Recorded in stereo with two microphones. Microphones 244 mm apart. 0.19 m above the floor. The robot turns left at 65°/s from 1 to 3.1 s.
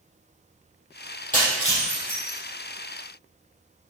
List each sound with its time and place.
1.3 s breaking glass: 35° left (ahead or behind), 4 m; by 2.4 s 75° left (ahead or behind), 4 m